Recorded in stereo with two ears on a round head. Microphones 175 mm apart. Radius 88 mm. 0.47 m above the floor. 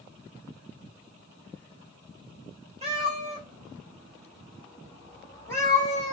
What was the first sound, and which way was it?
A cat meowing, 30° right (ahead or behind).